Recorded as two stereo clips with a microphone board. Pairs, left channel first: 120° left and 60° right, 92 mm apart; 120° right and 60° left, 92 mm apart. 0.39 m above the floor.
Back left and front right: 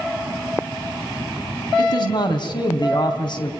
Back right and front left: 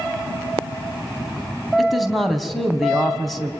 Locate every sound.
1.8 s a man speaking: 150° left, 3 m